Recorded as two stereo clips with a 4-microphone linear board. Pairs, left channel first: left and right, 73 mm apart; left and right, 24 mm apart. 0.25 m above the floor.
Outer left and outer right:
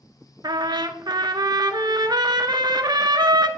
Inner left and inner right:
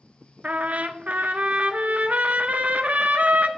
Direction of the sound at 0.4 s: 85° right.